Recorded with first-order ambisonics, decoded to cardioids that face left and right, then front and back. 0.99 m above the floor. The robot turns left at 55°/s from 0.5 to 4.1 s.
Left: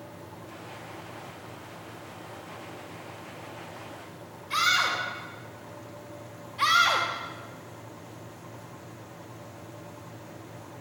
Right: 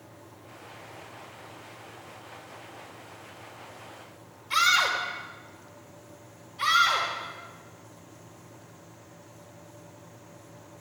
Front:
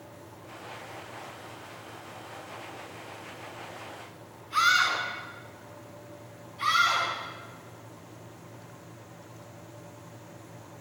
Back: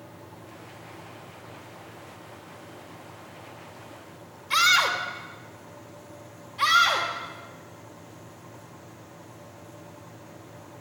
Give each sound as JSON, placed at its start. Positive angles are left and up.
{"t": 4.5, "sound": "a scream", "azimuth_deg": 180, "distance_m": 3.5}
{"t": 6.6, "sound": "a scream", "azimuth_deg": 140, "distance_m": 1.5}